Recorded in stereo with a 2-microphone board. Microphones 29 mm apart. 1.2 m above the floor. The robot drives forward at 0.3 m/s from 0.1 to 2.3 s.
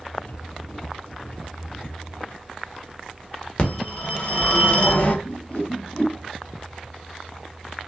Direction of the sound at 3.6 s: 40° left (ahead or behind).